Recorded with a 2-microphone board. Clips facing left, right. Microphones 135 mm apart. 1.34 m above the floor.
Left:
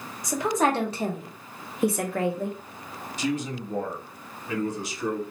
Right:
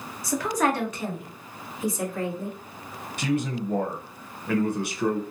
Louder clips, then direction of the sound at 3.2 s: Right 2 dB; 60° right (ahead or behind).